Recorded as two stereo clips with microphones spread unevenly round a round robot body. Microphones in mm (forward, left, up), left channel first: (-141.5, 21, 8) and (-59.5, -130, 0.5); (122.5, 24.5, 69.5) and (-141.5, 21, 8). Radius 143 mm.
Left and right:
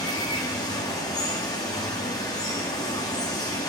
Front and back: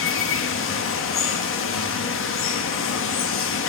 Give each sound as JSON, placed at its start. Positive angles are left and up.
{"t": 0.0, "sound": "running water", "azimuth_deg": 45, "distance_m": 0.9}